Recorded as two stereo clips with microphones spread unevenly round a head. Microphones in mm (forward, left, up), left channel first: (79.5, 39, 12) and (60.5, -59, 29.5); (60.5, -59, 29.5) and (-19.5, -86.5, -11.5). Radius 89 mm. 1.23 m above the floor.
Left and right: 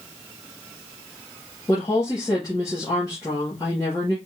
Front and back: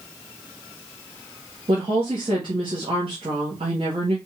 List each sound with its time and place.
1.7 s a woman speaking: 150° left, 1.4 m